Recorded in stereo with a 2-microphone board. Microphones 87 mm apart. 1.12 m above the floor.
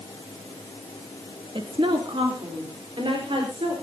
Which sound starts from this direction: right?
A woman speaking, at 1.6 s.